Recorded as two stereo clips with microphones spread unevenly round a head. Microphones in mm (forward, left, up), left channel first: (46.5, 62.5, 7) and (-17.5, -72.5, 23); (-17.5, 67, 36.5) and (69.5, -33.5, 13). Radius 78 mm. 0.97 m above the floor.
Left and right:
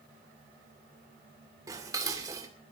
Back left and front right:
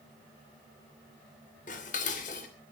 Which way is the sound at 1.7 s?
175° left.